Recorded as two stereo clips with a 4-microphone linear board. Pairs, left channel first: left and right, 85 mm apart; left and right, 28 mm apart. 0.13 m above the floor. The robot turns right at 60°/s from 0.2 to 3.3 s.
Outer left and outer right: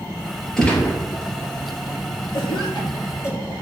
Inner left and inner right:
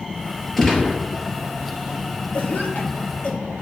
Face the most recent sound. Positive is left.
turn(degrees=35)  # may be behind; listen again after turning